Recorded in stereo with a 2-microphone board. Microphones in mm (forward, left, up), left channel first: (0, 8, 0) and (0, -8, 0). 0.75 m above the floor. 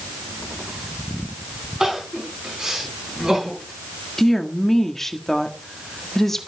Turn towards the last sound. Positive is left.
turn(degrees=25)  # may be behind; listen again after turning